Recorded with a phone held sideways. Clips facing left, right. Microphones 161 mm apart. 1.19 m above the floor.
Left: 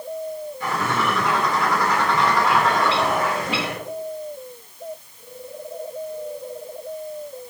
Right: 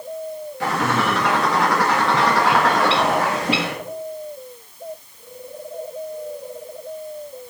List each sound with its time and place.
0.6 s a bird: 85° right, 1.8 m